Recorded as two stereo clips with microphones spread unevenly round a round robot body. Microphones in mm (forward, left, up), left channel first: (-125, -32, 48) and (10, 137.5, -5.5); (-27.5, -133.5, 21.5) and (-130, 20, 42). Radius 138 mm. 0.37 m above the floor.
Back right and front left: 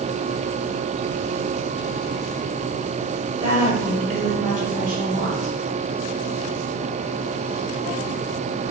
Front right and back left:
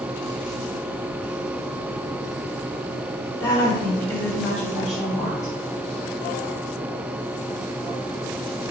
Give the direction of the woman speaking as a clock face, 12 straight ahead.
12 o'clock.